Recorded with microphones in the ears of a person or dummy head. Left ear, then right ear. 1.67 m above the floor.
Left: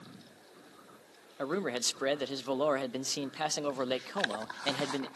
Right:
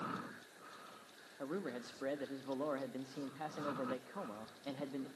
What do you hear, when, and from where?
1.4 s a man speaking: 80° left, 0.6 m